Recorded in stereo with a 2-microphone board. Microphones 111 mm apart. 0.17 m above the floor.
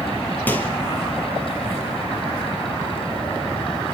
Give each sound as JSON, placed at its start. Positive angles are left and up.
{"t": 0.5, "sound": "a microwave", "side_deg": 15, "distance_m": 3.0}